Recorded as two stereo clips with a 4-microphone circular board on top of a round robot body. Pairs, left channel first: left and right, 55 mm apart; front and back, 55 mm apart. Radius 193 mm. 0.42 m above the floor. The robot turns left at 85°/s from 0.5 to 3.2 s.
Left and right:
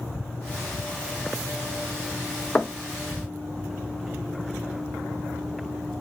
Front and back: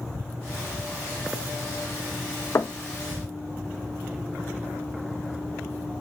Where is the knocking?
20° left, 0.6 m; by 2.8 s straight ahead, 0.6 m.